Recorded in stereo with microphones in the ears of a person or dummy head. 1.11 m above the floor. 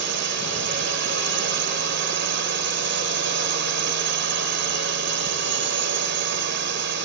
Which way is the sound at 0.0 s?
60° right (ahead or behind).